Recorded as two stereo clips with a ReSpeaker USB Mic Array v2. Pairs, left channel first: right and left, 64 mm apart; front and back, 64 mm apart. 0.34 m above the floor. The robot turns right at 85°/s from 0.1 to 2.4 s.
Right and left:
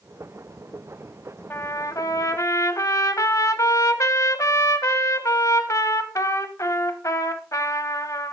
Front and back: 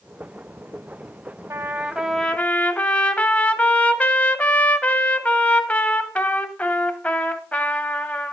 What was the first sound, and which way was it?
A trumpet, 145° right.